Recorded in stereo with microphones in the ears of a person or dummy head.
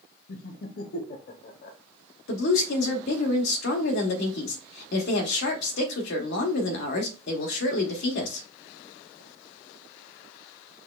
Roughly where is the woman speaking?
Left.